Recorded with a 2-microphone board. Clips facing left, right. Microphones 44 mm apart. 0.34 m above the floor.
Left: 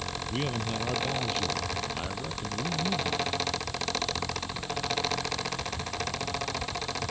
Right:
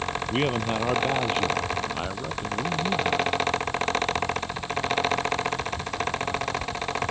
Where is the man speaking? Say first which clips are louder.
Right 7 dB; 45° right (ahead or behind); by 3.3 s 20° right (ahead or behind).